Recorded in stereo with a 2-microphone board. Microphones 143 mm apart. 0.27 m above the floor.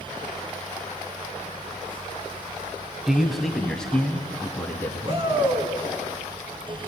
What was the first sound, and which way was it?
A man speaking, 5° right (ahead or behind).